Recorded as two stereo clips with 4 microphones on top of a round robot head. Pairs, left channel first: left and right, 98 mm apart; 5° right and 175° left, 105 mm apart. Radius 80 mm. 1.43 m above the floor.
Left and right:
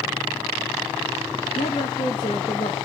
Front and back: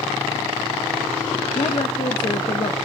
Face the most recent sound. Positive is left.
turn(degrees=35)